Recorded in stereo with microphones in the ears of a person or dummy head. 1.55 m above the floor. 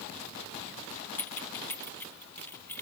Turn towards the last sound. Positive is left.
turn(degrees=10)  # may be behind; listen again after turning